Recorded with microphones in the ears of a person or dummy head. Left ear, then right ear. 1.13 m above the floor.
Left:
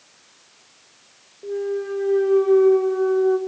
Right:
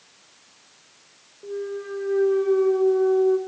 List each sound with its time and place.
1.4 s a clunk: 15° left (ahead or behind), 1.9 m